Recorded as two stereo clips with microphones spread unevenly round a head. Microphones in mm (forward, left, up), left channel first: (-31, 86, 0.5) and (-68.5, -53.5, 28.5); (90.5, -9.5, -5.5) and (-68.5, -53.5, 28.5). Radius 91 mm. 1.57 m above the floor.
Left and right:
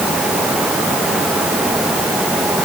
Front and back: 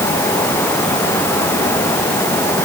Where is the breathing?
No breathing in this recording.